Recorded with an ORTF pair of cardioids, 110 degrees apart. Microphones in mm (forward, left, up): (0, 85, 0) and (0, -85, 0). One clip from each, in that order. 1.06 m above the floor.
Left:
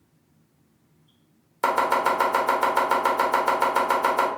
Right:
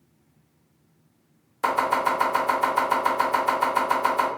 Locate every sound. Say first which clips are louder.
1.6 s chopping: left 1 dB; 25° left, 1.1 m